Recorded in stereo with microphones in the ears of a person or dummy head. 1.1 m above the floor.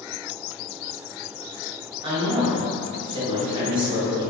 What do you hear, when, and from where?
2.0 s a woman speaking: 25° right (ahead or behind), 0.8 m